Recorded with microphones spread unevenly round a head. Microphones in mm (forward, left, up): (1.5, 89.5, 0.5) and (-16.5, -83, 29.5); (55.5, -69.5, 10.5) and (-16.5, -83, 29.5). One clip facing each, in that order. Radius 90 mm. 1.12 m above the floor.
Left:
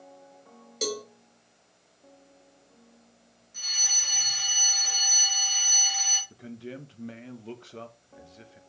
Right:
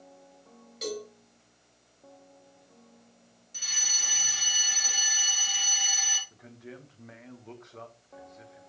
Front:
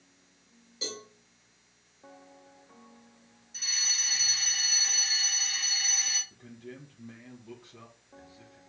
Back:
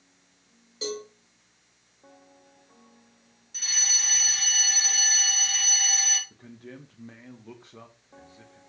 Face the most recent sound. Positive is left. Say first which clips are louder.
# left 6 dB, back 1 dB
turn(degrees=125)